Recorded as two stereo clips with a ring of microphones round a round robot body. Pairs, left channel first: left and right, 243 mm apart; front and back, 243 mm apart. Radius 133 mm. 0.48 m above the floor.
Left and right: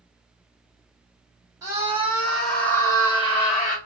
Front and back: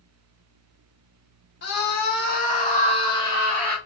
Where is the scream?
15° right, 1.5 m; by 3.8 s 80° left, 1.2 m.